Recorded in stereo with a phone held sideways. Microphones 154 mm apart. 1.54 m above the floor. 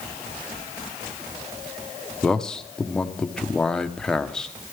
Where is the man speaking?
5° left (ahead or behind), 0.8 m.